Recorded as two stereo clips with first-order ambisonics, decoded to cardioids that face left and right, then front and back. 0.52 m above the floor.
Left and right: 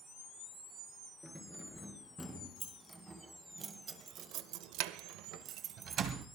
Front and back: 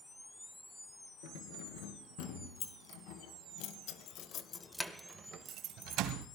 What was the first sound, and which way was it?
Keys jangling, straight ahead.